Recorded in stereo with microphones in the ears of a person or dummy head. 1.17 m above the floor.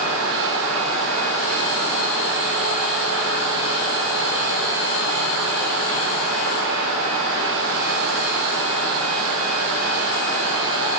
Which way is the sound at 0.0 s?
70° right (ahead or behind).